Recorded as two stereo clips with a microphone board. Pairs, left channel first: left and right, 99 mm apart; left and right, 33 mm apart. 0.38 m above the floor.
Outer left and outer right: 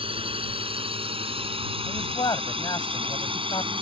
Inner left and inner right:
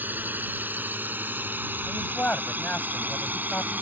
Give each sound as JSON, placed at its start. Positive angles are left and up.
{"t": 0.0, "sound": "a drone", "side_deg": -70}
{"t": 1.9, "sound": "a man speaking", "side_deg": 50}